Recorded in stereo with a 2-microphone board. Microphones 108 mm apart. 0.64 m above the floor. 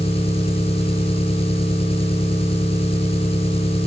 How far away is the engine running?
About 8 m.